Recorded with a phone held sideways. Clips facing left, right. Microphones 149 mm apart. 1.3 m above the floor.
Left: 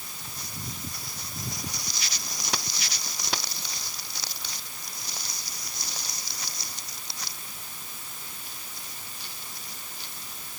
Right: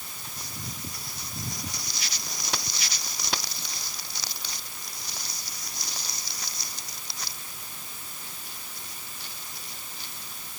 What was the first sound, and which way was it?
Only background noise.